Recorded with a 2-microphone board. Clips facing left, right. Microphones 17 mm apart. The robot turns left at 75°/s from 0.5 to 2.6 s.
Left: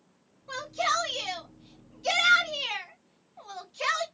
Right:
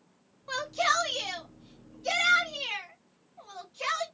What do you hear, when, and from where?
0.5 s a shout: 35° right (ahead or behind), 1.2 m; by 4.0 s 45° left (ahead or behind), 1.2 m